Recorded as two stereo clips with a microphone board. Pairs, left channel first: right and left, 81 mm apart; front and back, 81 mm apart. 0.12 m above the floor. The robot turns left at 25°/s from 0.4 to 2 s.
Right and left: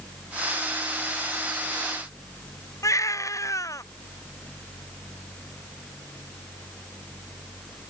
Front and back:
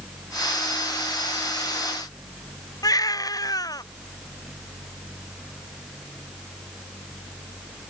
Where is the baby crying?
40° right.